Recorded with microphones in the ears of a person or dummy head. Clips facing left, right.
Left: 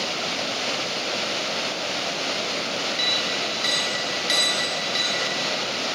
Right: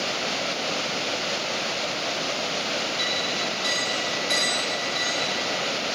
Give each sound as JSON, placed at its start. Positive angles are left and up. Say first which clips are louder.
{"t": 3.0, "sound": "a clink", "louder": "even", "side_deg": 50, "distance_m": 1.7}